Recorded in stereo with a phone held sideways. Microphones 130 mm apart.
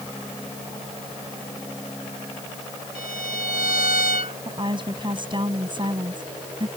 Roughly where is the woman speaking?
Right.